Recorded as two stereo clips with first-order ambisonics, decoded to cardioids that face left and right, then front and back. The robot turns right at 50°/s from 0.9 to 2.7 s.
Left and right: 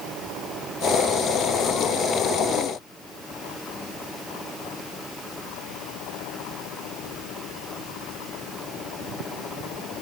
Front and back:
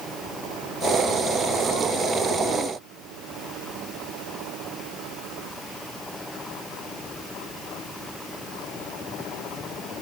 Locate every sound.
Only background noise.